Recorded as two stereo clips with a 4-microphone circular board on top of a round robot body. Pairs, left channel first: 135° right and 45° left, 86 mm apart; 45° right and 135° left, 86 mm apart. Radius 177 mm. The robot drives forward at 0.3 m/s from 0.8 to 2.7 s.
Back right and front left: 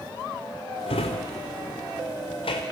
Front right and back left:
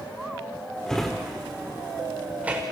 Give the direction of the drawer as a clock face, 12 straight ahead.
4 o'clock.